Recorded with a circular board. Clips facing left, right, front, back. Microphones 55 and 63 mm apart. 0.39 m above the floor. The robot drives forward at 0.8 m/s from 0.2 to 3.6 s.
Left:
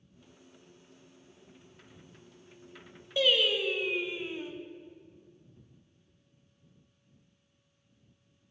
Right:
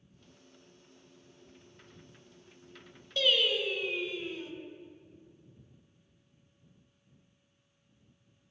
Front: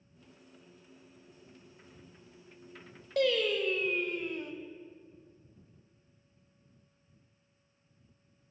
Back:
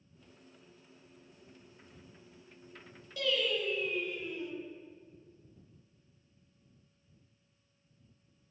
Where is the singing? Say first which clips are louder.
Left 2 dB, front 5 dB; 15° left, 0.8 m; by 4.5 s 25° left, 0.5 m.